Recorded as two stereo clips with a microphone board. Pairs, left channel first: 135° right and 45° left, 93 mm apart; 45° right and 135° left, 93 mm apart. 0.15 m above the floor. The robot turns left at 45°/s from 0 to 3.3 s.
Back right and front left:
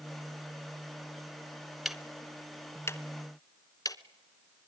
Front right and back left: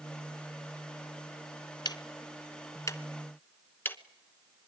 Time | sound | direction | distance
1.9 | ticking | 40° right | 0.8 m